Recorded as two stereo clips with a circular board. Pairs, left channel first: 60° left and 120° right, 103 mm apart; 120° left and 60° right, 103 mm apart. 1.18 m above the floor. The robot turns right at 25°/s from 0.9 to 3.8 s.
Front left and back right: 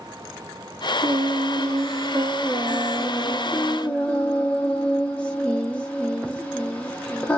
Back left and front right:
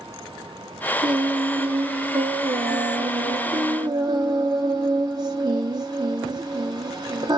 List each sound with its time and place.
1.0 s singing: 85° right, 0.8 m; by 7.4 s 20° right, 0.8 m